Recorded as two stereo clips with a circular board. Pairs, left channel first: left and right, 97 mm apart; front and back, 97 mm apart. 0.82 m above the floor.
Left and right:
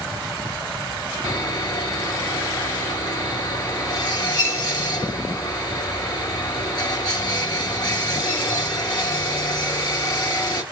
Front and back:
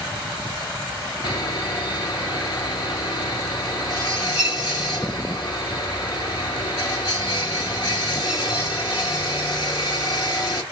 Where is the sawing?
45° left, 2.5 m.